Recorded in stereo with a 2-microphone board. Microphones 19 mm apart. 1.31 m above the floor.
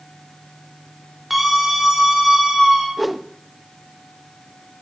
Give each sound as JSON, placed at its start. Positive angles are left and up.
{"t": 1.3, "sound": "a scream", "side_deg": -15, "distance_m": 5.5}
{"t": 3.0, "sound": "a whoosh", "side_deg": 0, "distance_m": 0.8}